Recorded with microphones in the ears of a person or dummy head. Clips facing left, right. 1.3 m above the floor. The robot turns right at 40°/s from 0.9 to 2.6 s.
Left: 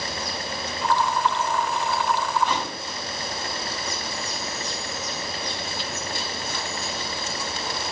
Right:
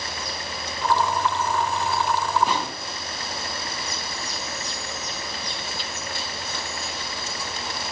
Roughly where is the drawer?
Centre.